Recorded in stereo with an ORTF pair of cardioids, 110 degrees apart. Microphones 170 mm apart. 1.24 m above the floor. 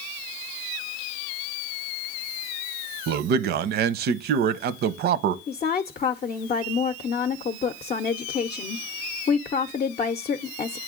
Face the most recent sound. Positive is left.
turn(degrees=40)